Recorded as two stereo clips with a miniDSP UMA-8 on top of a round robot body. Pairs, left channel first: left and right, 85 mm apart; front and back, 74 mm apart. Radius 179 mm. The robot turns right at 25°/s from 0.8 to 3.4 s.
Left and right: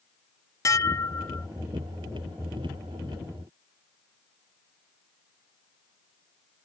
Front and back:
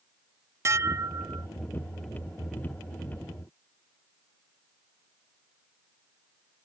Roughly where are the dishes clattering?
Behind left.